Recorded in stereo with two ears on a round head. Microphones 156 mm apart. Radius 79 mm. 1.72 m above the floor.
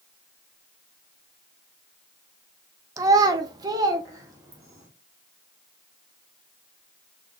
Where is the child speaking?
20° right (ahead or behind), 0.5 m; by 4.9 s 15° right (ahead or behind), 1.6 m.